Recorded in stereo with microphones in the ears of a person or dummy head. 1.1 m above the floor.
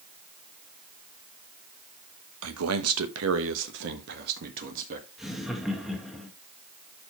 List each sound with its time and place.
2.4 s a man speaking: 70° right (ahead or behind), 1.0 m; by 5.1 s 45° right (ahead or behind), 1.6 m
5.2 s laughter: centre (ahead or behind), 1.6 m